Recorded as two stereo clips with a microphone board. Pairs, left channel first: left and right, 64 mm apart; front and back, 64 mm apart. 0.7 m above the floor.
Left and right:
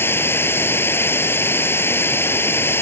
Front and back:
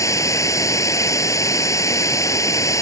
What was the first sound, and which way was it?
Running water, 35° left.